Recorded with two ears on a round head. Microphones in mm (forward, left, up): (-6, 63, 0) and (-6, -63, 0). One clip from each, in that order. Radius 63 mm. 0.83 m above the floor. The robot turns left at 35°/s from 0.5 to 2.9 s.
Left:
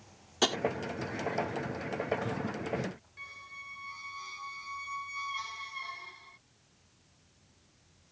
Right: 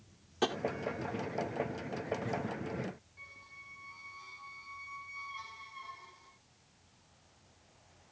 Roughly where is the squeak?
Left.